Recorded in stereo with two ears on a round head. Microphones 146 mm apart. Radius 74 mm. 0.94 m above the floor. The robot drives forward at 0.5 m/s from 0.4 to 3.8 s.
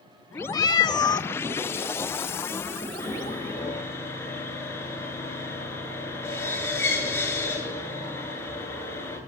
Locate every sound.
0.5 s a cat meowing: 25° left (ahead or behind), 0.6 m
3.0 s sawing: 15° left (ahead or behind), 10 m